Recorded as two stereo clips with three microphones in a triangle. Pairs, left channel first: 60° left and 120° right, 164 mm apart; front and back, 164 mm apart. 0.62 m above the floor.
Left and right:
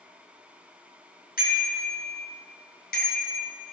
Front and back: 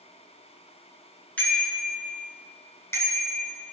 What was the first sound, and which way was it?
A bicycle bell, 80° left.